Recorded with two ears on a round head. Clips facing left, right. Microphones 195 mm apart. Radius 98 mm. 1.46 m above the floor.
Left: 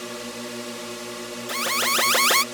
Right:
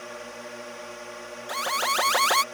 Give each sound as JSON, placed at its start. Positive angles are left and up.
{"t": 0.0, "sound": "a drone", "side_deg": 50}
{"t": 1.5, "sound": "an alarm", "side_deg": 35}